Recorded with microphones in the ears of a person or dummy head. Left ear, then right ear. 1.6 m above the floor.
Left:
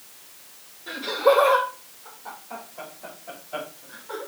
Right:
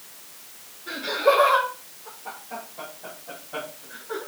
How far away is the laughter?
About 5 m.